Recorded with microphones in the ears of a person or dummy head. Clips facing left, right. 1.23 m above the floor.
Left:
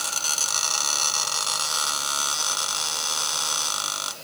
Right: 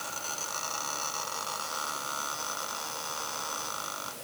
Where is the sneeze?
I don't hear a sneeze.